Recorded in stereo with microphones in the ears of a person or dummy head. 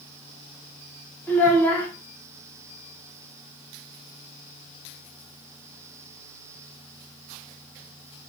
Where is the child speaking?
10° left (ahead or behind), 0.8 m.